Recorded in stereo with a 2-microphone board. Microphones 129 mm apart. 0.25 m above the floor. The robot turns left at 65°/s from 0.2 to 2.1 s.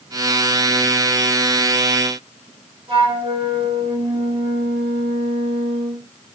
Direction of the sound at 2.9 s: 45° right (ahead or behind).